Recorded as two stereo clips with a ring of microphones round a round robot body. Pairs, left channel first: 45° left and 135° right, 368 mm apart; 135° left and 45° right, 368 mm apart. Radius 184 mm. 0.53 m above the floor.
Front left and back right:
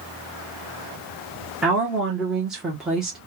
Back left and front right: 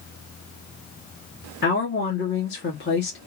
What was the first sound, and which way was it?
A woman speaking, 140° left.